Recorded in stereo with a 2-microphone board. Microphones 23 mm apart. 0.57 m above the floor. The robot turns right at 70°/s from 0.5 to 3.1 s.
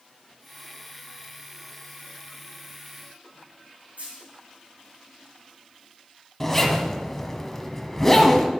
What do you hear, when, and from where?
4.0 s a dropped coin: 85° right, 4.5 m
6.4 s a zipper: 10° left (ahead or behind), 1.1 m